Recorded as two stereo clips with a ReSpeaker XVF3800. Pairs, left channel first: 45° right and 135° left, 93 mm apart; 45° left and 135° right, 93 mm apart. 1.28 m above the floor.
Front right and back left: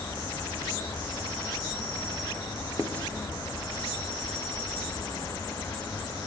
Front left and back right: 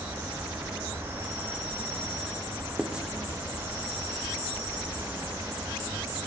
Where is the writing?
75° right, 0.9 m.